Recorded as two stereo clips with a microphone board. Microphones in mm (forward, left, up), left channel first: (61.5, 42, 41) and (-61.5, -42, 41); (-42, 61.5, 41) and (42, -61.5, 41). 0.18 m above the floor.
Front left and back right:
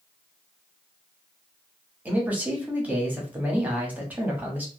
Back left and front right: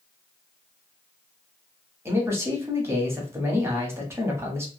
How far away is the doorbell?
No doorbell in this recording.